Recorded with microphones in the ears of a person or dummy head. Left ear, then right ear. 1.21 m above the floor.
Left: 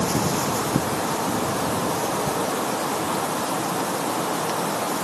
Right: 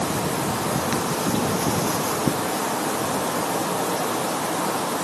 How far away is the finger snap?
No finger snap in this recording.